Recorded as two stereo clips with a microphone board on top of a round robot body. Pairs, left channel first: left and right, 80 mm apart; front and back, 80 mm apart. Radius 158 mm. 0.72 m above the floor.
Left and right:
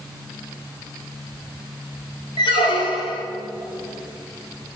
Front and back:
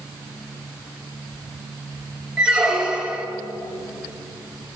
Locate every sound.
2.4 s a squeak: 100° left, 0.6 m